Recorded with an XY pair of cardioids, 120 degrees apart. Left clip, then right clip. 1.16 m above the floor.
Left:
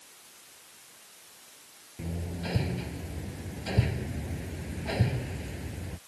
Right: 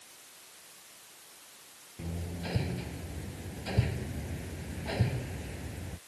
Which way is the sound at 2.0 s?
15° left.